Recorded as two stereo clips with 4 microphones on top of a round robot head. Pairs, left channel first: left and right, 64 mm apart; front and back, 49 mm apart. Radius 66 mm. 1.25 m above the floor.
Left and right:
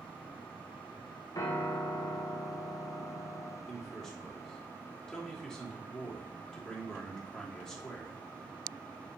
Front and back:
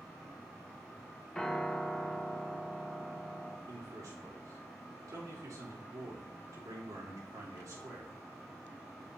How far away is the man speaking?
About 3 m.